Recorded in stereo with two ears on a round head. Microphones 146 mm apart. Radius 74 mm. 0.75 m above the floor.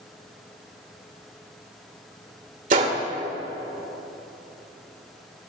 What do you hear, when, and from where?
2.7 s a gunshot: 55° right (ahead or behind), 2.5 m